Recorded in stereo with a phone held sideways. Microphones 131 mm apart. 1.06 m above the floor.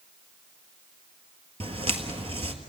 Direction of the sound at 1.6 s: 45° right (ahead or behind).